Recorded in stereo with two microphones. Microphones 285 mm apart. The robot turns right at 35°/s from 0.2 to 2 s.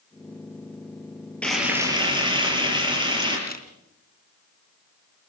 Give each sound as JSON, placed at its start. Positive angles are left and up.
{"t": 1.4, "sound": "frying", "side_deg": 5, "distance_m": 7.0}
{"t": 3.5, "sound": "a camera shutter", "side_deg": 30, "distance_m": 3.0}